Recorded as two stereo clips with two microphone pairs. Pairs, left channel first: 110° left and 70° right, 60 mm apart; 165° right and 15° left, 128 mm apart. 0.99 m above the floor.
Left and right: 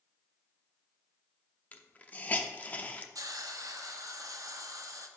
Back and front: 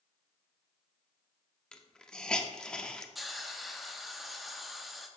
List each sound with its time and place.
1.7 s a hiss: 120° left, 0.5 m
3.1 s a hiss: 70° right, 0.7 m